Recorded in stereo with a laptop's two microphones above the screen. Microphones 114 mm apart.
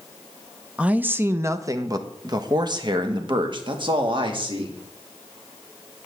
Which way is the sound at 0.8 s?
10° right (ahead or behind).